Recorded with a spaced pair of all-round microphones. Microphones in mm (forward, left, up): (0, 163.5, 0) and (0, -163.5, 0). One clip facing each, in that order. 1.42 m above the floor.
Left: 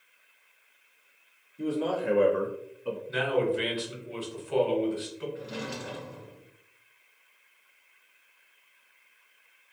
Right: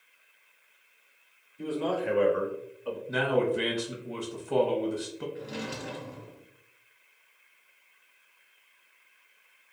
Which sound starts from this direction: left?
A man speaking, at 1.6 s.